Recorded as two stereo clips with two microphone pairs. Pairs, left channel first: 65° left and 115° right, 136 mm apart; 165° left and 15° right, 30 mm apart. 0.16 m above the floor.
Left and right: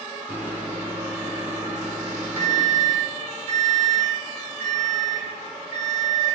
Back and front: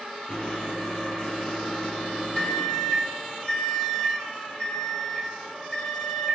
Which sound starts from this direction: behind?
A microwave, at 0.3 s.